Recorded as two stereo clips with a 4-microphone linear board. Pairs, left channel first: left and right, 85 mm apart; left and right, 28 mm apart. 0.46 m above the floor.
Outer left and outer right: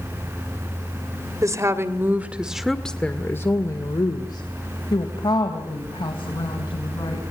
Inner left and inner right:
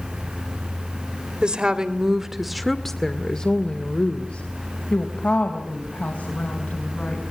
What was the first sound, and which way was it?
A woman speaking, 40° right (ahead or behind).